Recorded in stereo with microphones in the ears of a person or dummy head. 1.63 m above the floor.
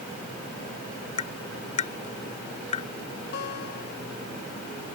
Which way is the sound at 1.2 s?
35° left (ahead or behind).